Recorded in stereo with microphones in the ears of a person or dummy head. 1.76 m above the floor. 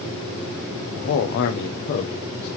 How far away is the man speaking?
About 0.7 m.